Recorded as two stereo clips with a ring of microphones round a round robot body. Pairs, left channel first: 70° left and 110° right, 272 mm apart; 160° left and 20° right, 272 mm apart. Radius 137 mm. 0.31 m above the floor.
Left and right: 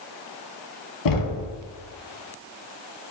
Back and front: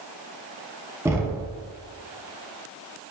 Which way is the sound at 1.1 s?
60° left.